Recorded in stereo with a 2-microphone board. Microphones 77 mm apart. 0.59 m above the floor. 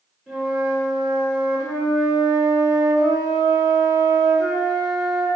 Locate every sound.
0.3 s a flute: 15° right (ahead or behind), 1.9 m